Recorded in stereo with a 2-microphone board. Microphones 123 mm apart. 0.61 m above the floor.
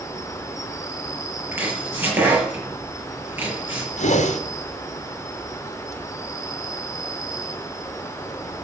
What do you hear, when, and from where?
0.0 s an insect: 25° left (ahead or behind), 1.2 m
1.5 s chopping: 15° right (ahead or behind), 6.5 m
4.0 s a whoosh: 70° left (ahead or behind), 1.6 m